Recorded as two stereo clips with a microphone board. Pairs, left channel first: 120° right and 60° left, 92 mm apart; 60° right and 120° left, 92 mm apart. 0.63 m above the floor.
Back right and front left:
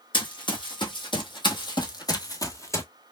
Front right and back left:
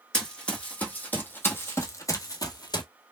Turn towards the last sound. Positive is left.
turn(degrees=-70)